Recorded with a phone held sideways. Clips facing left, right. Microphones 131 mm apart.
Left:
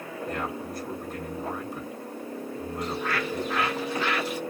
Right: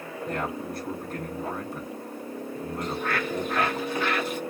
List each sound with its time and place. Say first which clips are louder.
0.2 s a man speaking: right 2 dB; 65° right (ahead or behind), 2 m
2.8 s a bird: even; 55° right (ahead or behind), 1.2 m